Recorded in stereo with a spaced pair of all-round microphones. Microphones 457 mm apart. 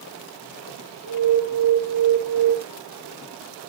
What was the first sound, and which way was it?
An alarm, 80° right.